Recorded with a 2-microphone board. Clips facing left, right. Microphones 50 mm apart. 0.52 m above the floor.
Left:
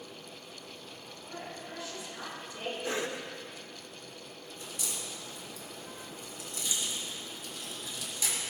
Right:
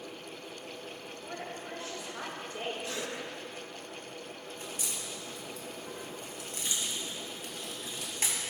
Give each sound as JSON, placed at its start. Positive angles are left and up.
{"t": 1.3, "sound": "a woman speaking", "side_deg": -50, "distance_m": 6.5}
{"t": 2.8, "sound": "a cough", "side_deg": 40, "distance_m": 1.7}
{"t": 4.6, "sound": "a crack", "side_deg": -55, "distance_m": 4.0}